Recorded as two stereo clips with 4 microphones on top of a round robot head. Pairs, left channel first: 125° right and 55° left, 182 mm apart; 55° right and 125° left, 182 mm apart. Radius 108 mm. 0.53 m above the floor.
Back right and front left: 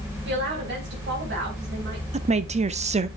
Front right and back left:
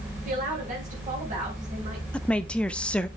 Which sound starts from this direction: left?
A woman speaking, at 0.2 s.